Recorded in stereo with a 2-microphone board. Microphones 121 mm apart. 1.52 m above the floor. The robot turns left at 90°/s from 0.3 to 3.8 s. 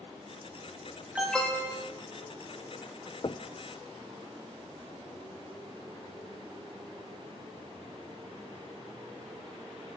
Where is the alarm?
170° right, 2 m; by 1.8 s 130° left, 2 m.